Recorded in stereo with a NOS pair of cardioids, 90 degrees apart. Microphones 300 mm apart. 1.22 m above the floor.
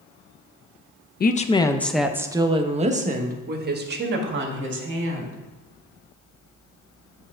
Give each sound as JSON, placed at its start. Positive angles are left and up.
{"t": 1.2, "sound": "a woman speaking", "azimuth_deg": 30, "distance_m": 0.6}